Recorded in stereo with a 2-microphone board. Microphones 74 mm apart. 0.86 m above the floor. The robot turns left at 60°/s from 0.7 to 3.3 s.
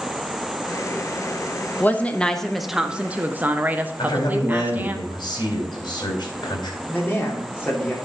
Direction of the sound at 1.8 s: 45° left.